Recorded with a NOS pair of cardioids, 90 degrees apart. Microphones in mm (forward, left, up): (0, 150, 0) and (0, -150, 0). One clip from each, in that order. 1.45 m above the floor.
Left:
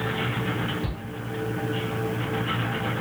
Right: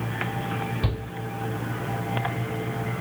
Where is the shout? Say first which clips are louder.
Right 3 dB; 60° right, 4 m.